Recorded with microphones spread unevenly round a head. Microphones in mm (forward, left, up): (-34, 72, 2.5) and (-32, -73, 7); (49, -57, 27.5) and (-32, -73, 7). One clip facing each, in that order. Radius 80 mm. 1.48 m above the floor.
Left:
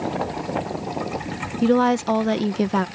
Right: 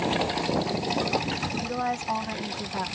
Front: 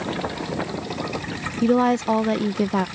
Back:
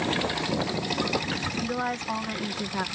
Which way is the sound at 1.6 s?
55° left.